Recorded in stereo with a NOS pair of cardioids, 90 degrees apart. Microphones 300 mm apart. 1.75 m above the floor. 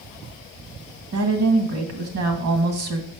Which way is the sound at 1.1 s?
65° right.